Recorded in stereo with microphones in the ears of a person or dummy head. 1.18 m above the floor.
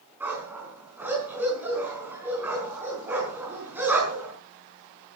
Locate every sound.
0.2 s a dog barking: 10° right (ahead or behind), 5 m